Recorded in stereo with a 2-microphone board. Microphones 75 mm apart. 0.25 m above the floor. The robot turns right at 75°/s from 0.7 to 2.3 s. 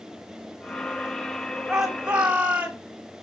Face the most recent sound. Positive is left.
turn(degrees=-20)  # may be behind; listen again after turning